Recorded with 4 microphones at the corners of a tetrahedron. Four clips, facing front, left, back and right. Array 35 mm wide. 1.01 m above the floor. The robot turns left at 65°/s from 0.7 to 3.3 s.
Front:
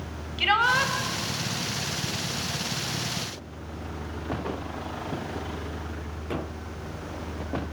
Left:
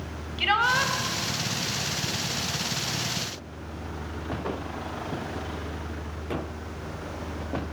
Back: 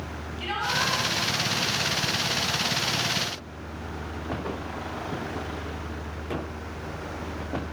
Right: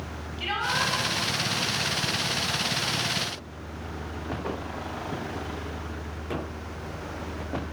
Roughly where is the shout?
Ahead left.